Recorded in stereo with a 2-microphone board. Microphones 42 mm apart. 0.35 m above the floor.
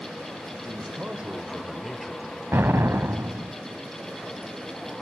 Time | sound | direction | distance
0.6 | a man speaking | 40° right (ahead or behind) | 1.8 m
2.5 | an explosion | 65° right (ahead or behind) | 0.8 m